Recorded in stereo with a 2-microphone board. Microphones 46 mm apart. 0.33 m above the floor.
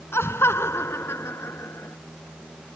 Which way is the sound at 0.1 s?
60° left (ahead or behind).